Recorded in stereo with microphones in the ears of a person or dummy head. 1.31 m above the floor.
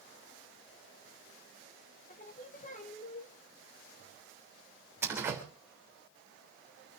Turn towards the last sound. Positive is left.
turn(degrees=-25)  # may be behind; listen again after turning